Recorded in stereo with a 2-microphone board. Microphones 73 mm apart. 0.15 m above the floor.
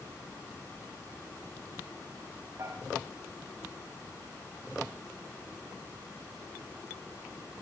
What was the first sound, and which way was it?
Dishes clattering, 40° right (ahead or behind).